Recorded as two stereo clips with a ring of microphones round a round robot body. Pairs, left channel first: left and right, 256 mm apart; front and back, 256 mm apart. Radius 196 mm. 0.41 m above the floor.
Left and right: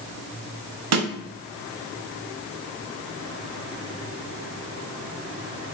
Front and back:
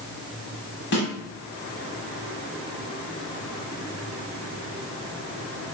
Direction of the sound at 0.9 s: 65° right.